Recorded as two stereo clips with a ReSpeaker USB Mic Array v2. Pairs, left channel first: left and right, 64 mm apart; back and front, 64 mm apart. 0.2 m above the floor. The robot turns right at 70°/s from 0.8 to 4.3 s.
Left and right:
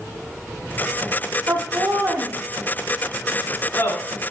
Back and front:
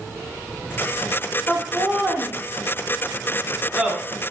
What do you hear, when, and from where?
1.5 s laughter: 100° right, 1.7 m; by 4.0 s 75° left, 1.7 m